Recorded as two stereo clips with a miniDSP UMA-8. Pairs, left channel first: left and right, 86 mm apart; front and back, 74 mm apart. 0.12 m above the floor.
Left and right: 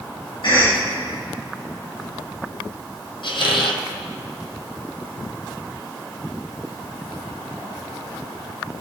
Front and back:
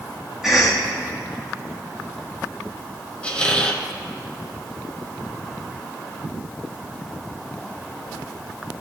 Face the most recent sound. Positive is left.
turn(degrees=75)